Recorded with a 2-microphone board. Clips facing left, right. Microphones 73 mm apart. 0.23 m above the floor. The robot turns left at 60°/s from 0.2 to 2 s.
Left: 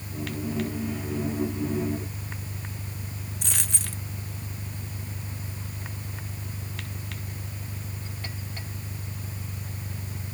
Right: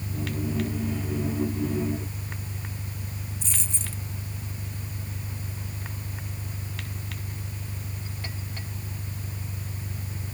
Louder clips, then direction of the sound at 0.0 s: Right 1 dB; 105° right.